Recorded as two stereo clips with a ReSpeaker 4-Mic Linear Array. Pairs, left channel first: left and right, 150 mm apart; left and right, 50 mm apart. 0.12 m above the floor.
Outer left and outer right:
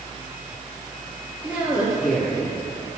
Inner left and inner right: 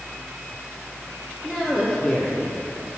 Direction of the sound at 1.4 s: 10° right (ahead or behind).